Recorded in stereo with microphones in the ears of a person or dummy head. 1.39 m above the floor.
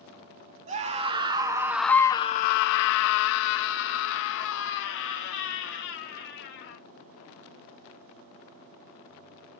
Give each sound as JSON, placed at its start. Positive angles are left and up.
{"t": 0.7, "sound": "a scream", "side_deg": -35, "distance_m": 1.0}